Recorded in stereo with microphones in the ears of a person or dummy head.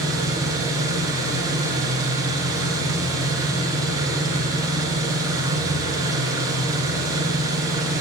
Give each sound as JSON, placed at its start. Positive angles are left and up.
{"t": 0.0, "sound": "an engine running", "side_deg": -20, "distance_m": 0.8}